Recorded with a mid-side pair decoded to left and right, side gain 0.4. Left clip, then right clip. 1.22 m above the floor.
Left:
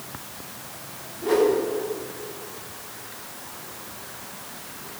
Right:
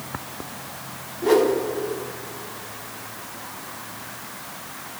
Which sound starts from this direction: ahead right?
A whoosh, at 1.2 s.